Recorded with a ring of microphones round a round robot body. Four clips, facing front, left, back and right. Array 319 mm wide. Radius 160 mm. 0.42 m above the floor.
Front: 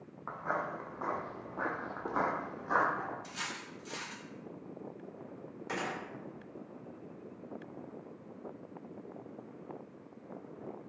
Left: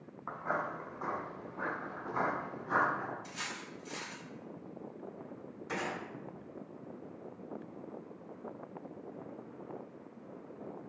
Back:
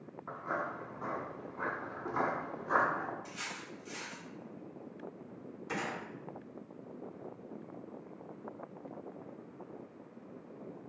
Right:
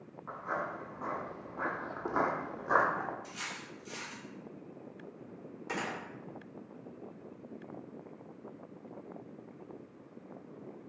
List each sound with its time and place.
0.3 s footsteps: 35° left, 1.2 m; by 3.1 s 90° right, 1.3 m
3.2 s cutlery clinking: 5° left, 1.3 m
5.7 s a gunshot: 45° right, 1.5 m